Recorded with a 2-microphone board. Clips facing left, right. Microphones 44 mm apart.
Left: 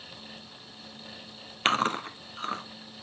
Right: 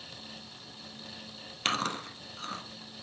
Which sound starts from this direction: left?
Chewing, at 1.6 s.